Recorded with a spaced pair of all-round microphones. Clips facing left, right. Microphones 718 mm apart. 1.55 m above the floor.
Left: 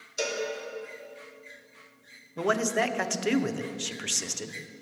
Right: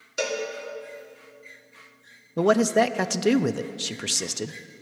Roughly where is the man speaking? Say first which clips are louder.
Right 8 dB; right.